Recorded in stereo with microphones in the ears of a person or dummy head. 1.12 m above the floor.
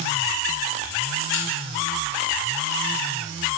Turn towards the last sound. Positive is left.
turn(degrees=85)